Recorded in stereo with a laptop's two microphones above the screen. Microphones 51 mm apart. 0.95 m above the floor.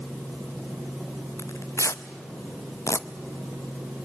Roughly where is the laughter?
I don't hear laughter.